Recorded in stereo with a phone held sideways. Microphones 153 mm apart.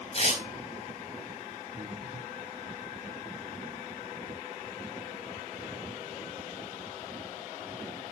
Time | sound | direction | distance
0.1 | tearing paper | 40° left (ahead or behind) | 4.5 m
1.7 | breathing | 20° right (ahead or behind) | 4.5 m